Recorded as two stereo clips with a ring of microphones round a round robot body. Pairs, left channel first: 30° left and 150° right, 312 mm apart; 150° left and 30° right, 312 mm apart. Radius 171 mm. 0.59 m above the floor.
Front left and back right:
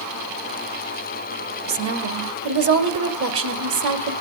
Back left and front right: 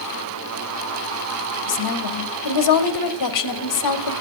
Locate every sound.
1.7 s a woman speaking: 165° left, 1.9 m